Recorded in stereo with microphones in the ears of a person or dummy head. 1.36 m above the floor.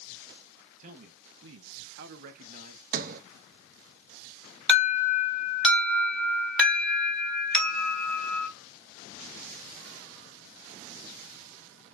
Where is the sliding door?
50° right (ahead or behind), 0.6 m.